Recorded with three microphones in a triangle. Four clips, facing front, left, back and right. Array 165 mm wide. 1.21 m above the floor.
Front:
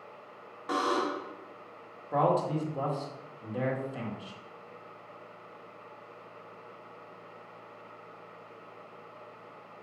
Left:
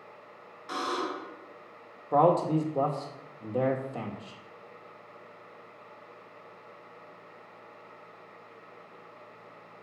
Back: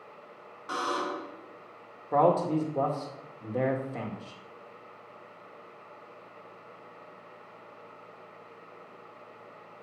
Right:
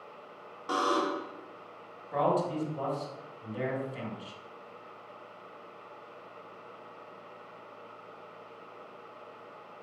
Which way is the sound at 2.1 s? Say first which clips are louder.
Left 5 dB, back 3 dB; 125° left.